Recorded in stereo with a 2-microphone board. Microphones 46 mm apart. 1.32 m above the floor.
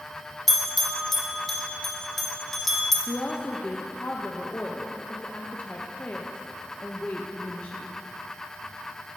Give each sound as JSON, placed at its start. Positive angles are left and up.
{"t": 0.5, "sound": "a bell", "side_deg": 5, "distance_m": 0.9}
{"t": 3.1, "sound": "a woman speaking", "side_deg": 40, "distance_m": 0.5}